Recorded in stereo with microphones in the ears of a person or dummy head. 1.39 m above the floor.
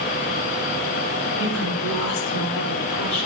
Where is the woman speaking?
80° left, 4 m.